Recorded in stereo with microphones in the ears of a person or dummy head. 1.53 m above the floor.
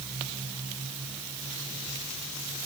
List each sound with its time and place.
Only background noise.